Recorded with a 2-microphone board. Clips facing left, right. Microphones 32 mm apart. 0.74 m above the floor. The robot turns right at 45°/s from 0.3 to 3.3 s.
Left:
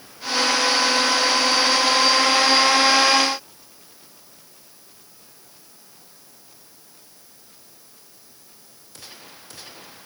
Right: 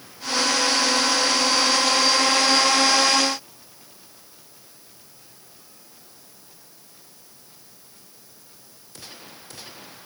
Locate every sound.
Only background noise.